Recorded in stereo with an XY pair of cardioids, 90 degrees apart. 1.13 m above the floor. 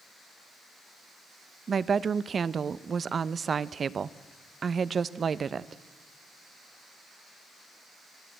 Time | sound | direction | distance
1.7 | a woman speaking | 45° right | 0.7 m